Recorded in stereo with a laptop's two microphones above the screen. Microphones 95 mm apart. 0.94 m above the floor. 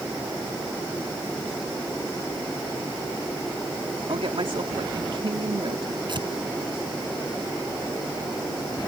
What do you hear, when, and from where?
4.1 s a woman speaking: 70° right (ahead or behind)
6.1 s tearing paper: 55° right (ahead or behind)